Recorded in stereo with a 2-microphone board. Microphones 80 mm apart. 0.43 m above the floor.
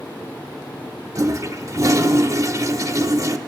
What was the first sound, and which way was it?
A toilet flushing, 40° right (ahead or behind).